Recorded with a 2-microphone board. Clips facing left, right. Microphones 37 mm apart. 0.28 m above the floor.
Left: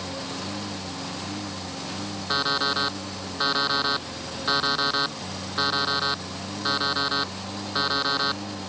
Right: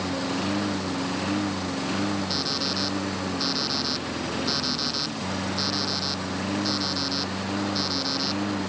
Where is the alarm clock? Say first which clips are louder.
Left 4 dB; 40° left (ahead or behind).